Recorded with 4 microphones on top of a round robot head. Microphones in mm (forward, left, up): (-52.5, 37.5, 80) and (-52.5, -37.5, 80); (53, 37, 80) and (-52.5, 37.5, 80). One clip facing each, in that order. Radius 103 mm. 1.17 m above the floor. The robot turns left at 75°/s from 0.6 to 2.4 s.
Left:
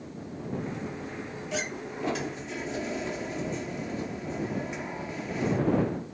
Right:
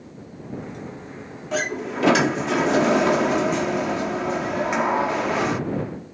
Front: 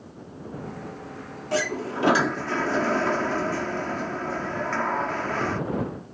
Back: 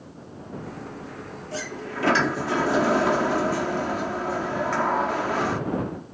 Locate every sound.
1.5 s a sliding door: 35° right; by 5.6 s 100° right